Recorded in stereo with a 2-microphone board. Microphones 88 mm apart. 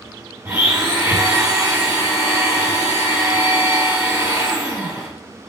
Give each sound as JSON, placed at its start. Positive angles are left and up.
{"t": 0.5, "sound": "a blender", "side_deg": -20, "distance_m": 5.0}